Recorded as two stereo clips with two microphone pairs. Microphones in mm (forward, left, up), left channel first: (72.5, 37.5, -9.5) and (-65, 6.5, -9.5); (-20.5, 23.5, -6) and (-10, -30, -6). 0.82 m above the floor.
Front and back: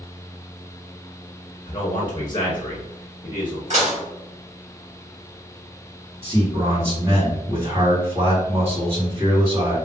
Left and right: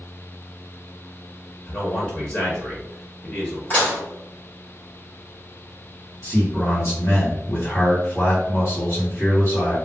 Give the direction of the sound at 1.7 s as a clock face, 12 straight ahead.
10 o'clock.